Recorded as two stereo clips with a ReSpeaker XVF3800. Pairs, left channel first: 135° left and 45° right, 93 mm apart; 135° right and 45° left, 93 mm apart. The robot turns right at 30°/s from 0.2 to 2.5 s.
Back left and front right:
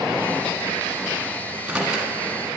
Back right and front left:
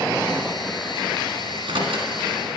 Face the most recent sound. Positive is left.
turn(degrees=55)